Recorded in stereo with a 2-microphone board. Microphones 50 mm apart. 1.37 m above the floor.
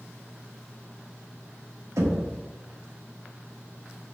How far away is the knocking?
About 0.7 m.